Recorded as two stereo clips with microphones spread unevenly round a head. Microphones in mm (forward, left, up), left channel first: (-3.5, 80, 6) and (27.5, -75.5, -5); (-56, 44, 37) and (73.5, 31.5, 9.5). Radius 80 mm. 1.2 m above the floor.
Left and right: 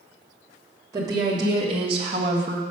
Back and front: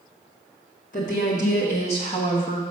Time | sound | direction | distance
0.9 | a woman speaking | 145° right | 2.5 m